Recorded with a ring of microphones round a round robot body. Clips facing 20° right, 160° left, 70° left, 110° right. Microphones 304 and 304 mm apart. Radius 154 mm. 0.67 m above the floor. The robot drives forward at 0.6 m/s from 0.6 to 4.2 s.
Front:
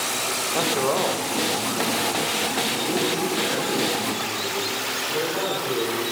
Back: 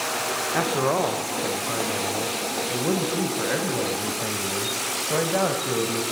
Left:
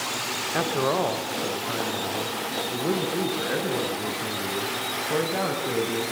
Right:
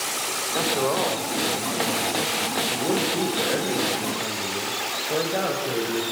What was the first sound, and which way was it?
A man speaking, 110° left.